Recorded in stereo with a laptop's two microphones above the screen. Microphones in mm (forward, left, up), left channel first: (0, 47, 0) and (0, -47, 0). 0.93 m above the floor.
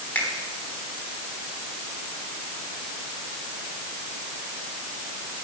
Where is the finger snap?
15° left (ahead or behind), 4.5 m.